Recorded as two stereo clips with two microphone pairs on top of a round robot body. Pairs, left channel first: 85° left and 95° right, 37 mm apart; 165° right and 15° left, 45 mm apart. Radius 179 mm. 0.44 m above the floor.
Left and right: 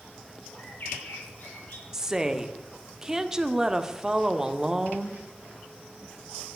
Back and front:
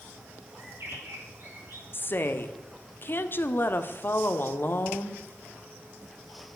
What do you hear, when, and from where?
0.6 s a bird: 55° left, 5.5 m
1.9 s a woman speaking: 170° right, 1.6 m